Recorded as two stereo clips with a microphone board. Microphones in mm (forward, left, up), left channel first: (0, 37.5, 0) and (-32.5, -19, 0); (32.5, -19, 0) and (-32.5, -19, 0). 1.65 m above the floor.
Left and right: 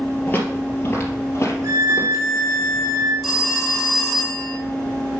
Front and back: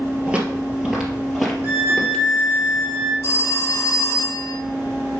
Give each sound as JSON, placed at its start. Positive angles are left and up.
{"t": 0.3, "sound": "footsteps", "azimuth_deg": 115, "distance_m": 2.5}
{"t": 1.6, "sound": "a violin", "azimuth_deg": -125, "distance_m": 1.9}
{"t": 3.2, "sound": "a phone ringing", "azimuth_deg": -35, "distance_m": 2.5}